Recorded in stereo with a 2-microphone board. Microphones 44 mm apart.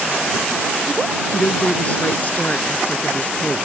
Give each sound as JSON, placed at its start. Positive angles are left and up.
{"t": 1.3, "sound": "a woman speaking", "side_deg": 35}